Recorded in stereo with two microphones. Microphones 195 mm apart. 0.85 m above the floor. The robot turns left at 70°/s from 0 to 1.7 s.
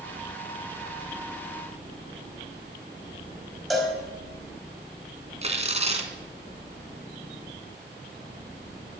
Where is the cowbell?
Centre (ahead or behind), 5 m.